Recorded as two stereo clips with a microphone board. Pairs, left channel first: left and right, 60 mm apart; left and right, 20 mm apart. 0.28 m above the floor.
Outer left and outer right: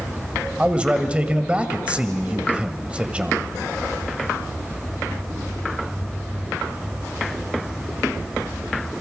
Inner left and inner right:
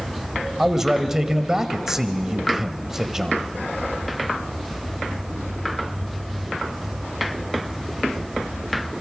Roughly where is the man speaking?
Right.